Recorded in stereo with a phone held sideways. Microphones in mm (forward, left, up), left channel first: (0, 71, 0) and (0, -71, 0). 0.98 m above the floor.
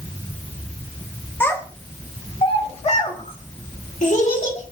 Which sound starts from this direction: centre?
A child speaking, at 1.4 s.